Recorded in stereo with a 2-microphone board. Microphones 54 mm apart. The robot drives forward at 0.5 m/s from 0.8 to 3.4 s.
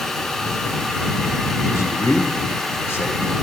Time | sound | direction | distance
1.7 | a man speaking | 65° left (ahead or behind) | 2 m